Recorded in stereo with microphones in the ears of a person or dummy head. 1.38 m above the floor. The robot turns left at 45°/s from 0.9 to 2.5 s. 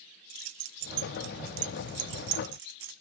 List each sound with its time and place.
0.3 s keys jangling: 40° right (ahead or behind), 0.5 m; by 3.0 s 60° right (ahead or behind), 0.5 m